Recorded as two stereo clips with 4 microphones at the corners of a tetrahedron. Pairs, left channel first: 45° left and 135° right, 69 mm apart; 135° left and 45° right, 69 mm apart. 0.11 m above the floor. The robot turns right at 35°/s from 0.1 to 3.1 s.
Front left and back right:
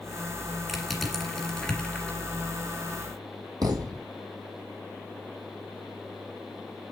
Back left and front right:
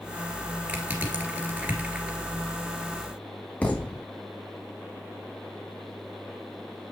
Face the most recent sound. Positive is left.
turn(degrees=-155)